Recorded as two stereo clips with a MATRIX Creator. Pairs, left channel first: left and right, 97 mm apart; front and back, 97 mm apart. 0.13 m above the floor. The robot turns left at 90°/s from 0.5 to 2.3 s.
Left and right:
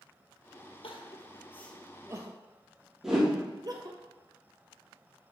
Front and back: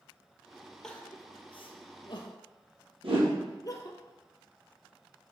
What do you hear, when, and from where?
0.8 s crying: 85° left, 0.9 m; by 4.0 s 45° right, 0.9 m
3.0 s a whoosh: 175° right, 2.5 m